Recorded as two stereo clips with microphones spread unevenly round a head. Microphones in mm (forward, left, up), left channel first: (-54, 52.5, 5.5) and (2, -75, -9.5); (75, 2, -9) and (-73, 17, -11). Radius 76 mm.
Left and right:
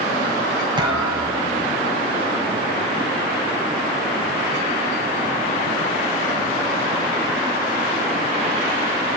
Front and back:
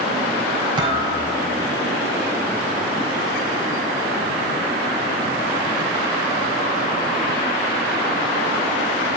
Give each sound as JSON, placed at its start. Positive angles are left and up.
{"t": 0.8, "sound": "a thud", "azimuth_deg": -125, "distance_m": 4.5}